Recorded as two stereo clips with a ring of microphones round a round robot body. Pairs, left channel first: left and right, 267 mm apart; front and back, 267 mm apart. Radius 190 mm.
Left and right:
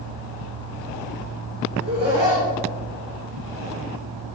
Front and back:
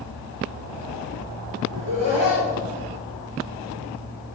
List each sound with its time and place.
1.7 s laughter: 140° right, 2 m